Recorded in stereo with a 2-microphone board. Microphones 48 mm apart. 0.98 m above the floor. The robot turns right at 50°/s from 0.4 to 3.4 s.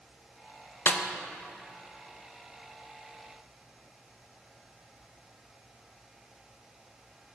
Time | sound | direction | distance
0.9 | a snare drum | 35° left (ahead or behind) | 0.6 m